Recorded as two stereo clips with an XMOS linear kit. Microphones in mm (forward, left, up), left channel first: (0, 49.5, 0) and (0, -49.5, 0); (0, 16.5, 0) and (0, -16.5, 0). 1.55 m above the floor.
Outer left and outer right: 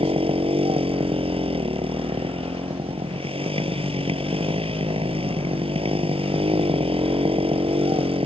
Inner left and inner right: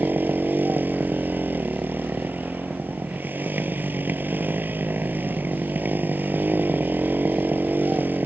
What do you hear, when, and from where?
0.0 s a motorcycle: 70° right (ahead or behind)